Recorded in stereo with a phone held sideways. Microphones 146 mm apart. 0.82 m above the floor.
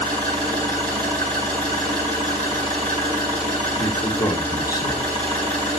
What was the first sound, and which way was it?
An engine running, 30° right (ahead or behind).